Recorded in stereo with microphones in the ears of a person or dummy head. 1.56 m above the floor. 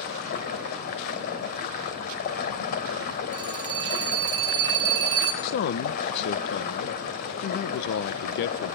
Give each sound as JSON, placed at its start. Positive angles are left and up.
{"t": 0.0, "sound": "running water", "side_deg": 50, "distance_m": 2.5}
{"t": 3.3, "sound": "a phone ringing", "side_deg": -20, "distance_m": 5.5}
{"t": 5.4, "sound": "a man speaking", "side_deg": 60, "distance_m": 1.2}